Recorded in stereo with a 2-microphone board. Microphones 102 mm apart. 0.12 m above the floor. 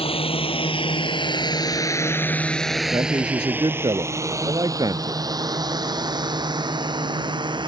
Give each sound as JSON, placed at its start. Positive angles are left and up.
{"t": 0.0, "sound": "a drone", "side_deg": 65}
{"t": 2.9, "sound": "a man speaking", "side_deg": -40}